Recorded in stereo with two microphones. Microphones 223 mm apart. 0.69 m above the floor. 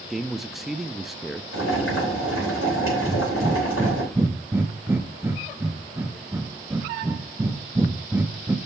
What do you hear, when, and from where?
0.1 s a man speaking: centre (ahead or behind), 0.5 m
1.5 s boiling: 75° left (ahead or behind), 5 m
3.0 s breathing: 10° right (ahead or behind), 0.7 m